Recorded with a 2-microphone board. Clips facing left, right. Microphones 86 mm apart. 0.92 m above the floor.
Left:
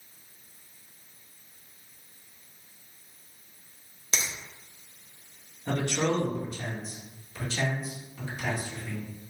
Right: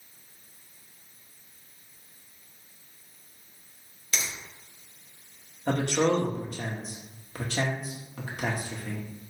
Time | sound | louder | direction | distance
4.1 | a finger snap | left 1 dB | 25° left (ahead or behind) | 1.0 m
5.7 | a man speaking | right 3 dB | 55° right (ahead or behind) | 1.3 m